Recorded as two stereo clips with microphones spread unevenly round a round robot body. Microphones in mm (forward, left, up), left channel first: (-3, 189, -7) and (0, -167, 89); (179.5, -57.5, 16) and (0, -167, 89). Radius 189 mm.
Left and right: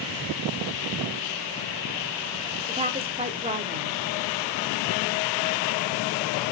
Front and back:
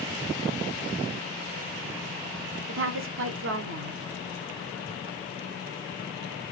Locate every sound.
2.7 s a woman speaking: 170° right, 1.3 m